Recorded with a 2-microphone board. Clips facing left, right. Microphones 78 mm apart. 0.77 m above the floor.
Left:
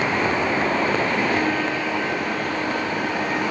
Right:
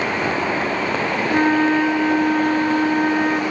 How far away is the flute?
About 0.9 m.